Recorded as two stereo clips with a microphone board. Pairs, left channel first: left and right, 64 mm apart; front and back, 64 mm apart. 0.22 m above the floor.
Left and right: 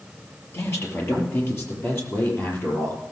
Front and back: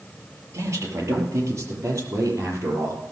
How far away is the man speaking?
About 5 m.